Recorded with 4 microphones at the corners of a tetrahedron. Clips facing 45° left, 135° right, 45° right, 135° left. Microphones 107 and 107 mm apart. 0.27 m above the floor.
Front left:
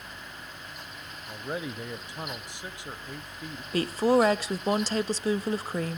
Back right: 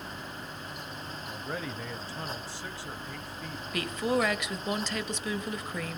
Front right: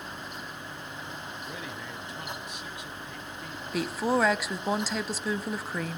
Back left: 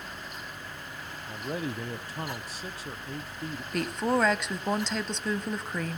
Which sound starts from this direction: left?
A man speaking, at 1.3 s.